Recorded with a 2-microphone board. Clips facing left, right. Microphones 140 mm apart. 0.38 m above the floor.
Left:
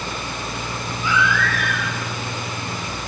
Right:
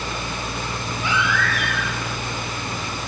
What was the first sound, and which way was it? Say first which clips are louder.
A baby crying: left 2 dB; 70° right (ahead or behind).